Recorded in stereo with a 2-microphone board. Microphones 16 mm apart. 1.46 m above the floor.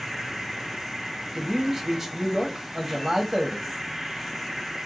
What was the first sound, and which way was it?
An insect, 25° right (ahead or behind).